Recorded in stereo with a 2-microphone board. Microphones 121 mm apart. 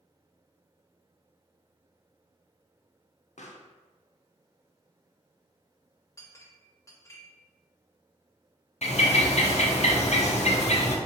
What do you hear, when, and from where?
3.4 s a pop: 80° left, 0.5 m
6.2 s a clink: 25° left (ahead or behind), 0.7 m
8.8 s a bird: 65° left (ahead or behind), 0.8 m